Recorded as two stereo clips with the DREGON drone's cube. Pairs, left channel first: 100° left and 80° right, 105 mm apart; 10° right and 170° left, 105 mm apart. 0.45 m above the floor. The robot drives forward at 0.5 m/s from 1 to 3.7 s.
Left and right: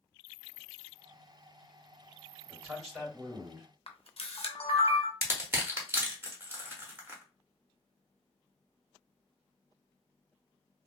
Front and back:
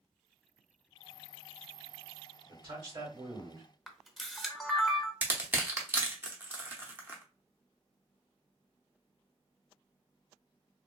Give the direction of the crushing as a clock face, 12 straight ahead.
4 o'clock.